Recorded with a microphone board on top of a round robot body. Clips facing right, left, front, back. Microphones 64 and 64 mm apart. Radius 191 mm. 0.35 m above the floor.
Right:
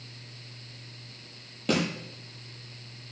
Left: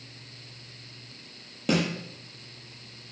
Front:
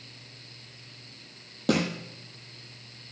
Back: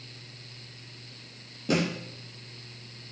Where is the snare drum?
5° left, 7.5 m.